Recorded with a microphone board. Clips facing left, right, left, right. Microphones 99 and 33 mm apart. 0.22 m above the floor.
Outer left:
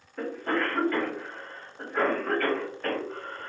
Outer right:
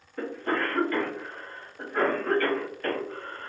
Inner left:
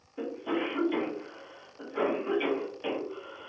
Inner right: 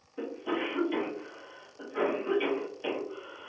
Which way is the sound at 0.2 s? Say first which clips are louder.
Even, inner left 1 dB; 5° left (ahead or behind).